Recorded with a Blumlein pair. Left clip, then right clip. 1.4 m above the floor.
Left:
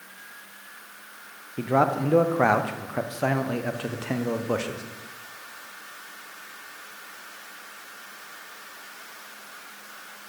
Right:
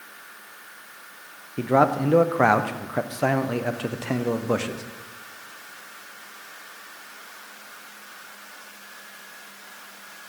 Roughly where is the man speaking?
Ahead.